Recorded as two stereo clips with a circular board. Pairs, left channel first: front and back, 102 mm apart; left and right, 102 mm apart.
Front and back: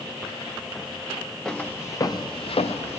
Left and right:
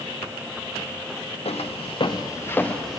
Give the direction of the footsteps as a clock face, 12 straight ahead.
9 o'clock.